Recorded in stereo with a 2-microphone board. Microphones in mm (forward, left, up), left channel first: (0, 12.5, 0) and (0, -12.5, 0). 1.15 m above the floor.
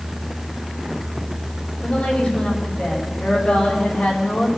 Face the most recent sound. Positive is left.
turn(degrees=45)  # may be behind; listen again after turning